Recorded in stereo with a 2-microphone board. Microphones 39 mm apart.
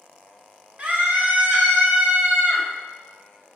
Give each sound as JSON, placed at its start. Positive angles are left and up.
{"t": 0.8, "sound": "a scream", "side_deg": -35, "distance_m": 1.7}